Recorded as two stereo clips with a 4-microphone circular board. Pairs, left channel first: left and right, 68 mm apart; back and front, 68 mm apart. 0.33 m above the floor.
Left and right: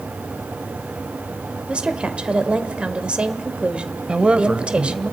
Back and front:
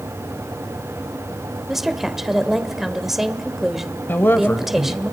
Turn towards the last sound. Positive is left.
turn(degrees=-155)